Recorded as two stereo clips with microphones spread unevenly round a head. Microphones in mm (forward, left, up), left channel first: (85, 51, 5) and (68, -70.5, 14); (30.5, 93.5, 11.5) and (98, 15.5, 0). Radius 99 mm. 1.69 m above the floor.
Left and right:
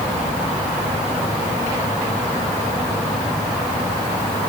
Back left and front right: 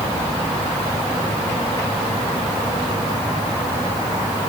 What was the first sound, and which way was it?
Only background noise.